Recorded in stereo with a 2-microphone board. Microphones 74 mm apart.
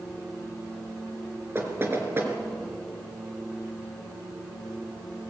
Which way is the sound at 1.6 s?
35° right (ahead or behind).